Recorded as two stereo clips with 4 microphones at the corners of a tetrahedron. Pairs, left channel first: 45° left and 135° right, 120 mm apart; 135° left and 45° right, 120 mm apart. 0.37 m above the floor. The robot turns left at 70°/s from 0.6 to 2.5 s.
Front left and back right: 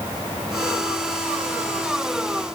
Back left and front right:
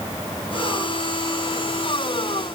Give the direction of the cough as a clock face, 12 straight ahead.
I don't hear a cough.